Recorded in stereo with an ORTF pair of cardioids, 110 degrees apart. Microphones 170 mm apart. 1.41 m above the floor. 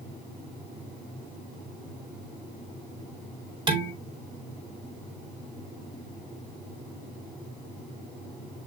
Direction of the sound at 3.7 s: 25° right.